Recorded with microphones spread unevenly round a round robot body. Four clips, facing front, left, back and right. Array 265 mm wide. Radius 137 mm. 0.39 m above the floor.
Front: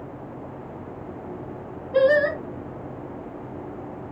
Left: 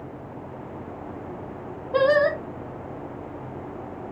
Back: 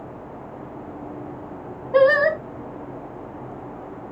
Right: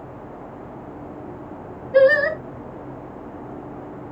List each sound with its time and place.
1.9 s singing: 160° left, 1.8 m